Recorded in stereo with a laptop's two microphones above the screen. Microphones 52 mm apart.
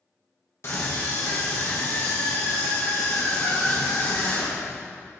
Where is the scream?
55° left (ahead or behind), 0.9 m.